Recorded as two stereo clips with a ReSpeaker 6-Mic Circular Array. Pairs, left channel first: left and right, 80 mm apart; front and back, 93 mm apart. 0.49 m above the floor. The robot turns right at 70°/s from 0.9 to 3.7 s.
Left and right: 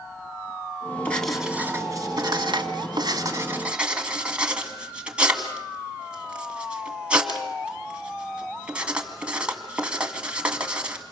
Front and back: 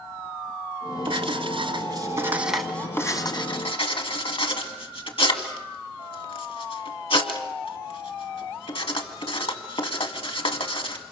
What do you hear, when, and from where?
1.1 s writing: 160° left, 1.9 m; by 11.0 s 15° right, 1.9 m